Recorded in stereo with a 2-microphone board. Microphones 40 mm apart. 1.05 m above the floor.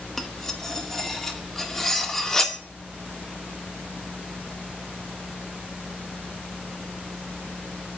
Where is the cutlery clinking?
10° left (ahead or behind), 0.5 m.